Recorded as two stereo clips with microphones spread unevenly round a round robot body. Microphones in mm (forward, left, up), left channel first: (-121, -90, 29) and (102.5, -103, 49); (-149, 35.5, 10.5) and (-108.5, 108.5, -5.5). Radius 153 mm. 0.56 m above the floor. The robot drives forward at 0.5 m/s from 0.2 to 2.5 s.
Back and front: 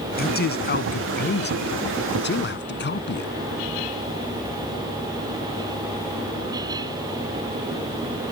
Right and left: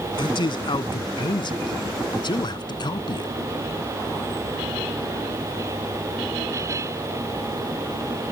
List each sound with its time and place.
0.2 s a man speaking: 135° right; by 3.3 s 145° right